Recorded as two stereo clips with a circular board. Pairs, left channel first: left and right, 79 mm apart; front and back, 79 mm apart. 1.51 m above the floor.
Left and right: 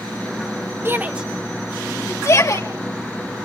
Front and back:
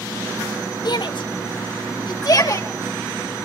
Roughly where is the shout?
Ahead right.